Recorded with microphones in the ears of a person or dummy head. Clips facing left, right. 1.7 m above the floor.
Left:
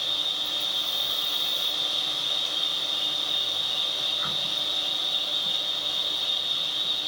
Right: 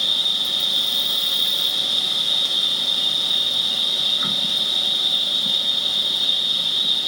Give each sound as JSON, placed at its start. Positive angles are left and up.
{"t": 0.0, "sound": "an insect", "side_deg": -60, "distance_m": 1.7}